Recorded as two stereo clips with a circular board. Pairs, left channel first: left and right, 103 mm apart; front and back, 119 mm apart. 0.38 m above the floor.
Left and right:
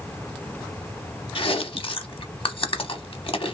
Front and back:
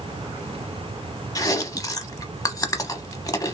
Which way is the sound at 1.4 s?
60° left.